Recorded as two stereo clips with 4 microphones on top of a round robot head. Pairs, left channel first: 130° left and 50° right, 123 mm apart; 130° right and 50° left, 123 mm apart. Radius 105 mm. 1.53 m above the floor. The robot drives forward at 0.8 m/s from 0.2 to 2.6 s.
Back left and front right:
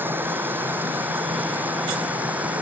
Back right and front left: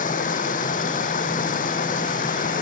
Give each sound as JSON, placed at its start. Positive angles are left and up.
{"t": 0.0, "sound": "running water", "azimuth_deg": -120}